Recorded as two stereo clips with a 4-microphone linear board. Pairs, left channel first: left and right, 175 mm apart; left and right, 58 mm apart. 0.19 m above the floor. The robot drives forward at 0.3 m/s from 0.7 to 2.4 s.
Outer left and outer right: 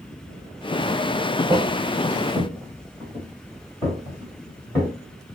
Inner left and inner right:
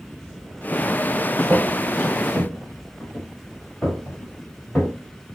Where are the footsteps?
10° right (ahead or behind), 0.7 m; by 4.9 s 20° left (ahead or behind), 3 m.